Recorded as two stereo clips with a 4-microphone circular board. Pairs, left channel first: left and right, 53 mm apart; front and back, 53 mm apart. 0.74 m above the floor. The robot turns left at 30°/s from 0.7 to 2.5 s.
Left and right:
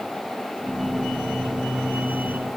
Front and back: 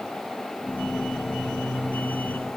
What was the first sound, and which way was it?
Only background noise.